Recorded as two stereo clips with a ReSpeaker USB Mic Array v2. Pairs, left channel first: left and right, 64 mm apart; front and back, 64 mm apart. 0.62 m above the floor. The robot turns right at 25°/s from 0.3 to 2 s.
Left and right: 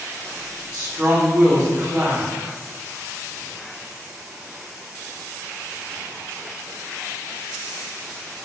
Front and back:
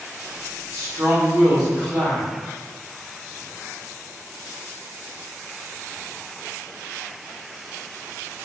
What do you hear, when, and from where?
0.7 s a woman speaking: 130° right, 1.2 m; by 2.3 s 95° right, 1.2 m